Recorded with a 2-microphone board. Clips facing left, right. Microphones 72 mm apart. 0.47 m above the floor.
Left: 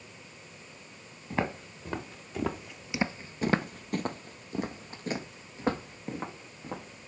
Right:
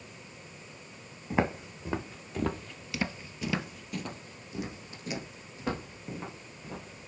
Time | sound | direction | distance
1.3 | footsteps | 10° right (ahead or behind) | 1.5 m